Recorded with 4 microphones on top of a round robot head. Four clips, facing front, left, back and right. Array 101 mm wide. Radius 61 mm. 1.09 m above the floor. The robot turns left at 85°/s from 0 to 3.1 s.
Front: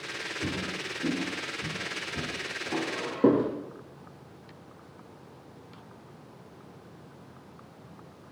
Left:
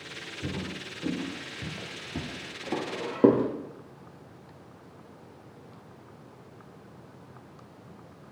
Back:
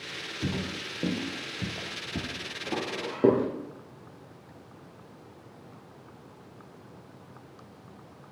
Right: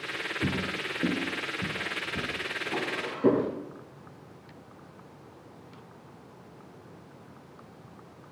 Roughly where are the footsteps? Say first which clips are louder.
Right 4 dB, back 2 dB; right.